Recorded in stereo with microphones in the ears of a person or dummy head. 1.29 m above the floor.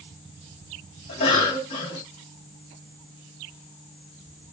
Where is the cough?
40° left (ahead or behind), 2.5 m.